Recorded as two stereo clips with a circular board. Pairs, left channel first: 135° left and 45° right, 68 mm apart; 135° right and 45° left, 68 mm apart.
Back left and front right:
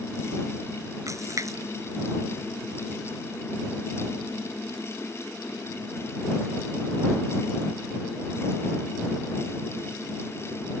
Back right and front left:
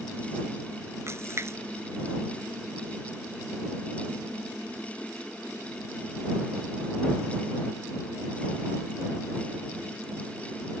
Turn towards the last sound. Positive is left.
turn(degrees=-5)